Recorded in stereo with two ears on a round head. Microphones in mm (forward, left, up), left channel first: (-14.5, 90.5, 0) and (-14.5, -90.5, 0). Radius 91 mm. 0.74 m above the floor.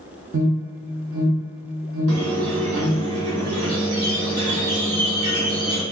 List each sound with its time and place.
0.3 s an alarm: 65° right (ahead or behind), 0.6 m
2.1 s a squeak: 75° right (ahead or behind), 1.2 m